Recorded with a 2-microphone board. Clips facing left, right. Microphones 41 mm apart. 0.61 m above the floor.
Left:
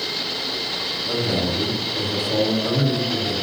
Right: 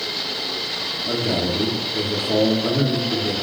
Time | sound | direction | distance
1.1 | a man speaking | 35° right (ahead or behind) | 0.9 m